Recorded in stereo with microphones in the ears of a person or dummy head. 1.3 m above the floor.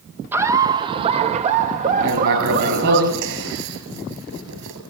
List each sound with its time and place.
0.3 s laughter: 15° right (ahead or behind), 0.9 m; by 3.0 s 55° right (ahead or behind), 2 m
2.0 s writing: 65° right (ahead or behind), 5.5 m